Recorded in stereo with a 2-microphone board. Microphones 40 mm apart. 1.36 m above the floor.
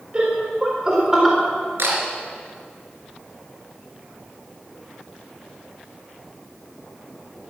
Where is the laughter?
30° right (ahead or behind), 5 m; by 1.4 s 10° right (ahead or behind), 4 m.